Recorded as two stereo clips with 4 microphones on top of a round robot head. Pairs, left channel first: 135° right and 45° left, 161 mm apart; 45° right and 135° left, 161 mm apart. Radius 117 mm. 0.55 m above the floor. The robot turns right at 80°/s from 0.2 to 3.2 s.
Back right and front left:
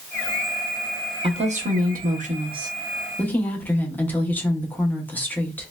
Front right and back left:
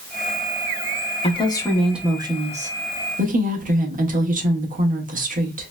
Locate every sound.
1.2 s a woman speaking: 5° right, 1.1 m; by 5.7 s 150° left, 1.1 m